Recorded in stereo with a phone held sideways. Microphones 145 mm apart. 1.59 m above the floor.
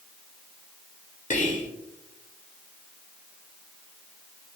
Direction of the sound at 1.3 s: 60° left (ahead or behind).